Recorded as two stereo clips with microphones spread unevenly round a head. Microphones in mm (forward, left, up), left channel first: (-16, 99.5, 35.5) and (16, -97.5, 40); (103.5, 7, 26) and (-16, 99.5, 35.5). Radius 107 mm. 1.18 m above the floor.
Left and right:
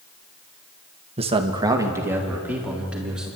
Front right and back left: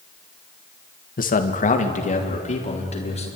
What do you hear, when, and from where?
1.2 s a man speaking: 25° right, 1.6 m; by 3.3 s 5° left, 4.5 m